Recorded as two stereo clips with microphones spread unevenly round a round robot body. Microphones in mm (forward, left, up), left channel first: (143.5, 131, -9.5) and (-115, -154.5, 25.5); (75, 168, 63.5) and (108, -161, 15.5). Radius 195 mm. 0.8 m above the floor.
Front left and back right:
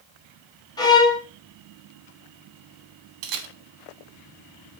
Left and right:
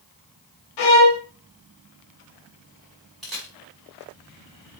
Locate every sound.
0.8 s a violin: 130° left, 1.7 m
3.2 s a camera shutter: 175° right, 1.7 m